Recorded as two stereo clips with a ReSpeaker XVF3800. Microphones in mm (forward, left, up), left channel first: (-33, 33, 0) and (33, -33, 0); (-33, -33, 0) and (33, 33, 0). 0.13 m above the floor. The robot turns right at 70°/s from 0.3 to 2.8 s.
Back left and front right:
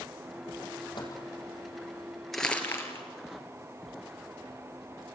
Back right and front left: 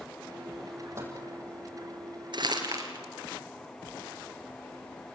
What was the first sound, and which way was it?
A microwave, 100° left.